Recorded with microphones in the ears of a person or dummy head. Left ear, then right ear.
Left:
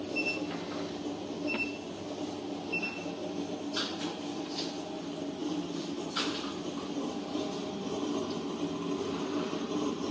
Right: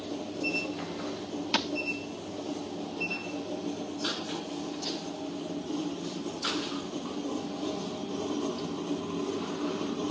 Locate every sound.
1.5 s a thud: 55° right (ahead or behind)